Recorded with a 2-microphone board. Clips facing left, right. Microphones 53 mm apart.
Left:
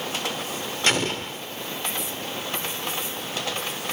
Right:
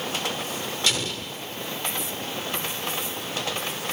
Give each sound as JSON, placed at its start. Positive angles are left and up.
{"t": 0.9, "sound": "an explosion", "side_deg": 45, "distance_m": 0.8}